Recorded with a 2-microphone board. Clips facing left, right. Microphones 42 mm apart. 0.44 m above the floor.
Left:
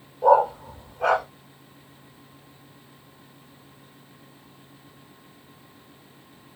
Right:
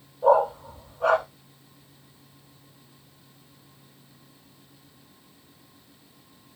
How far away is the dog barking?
About 3 m.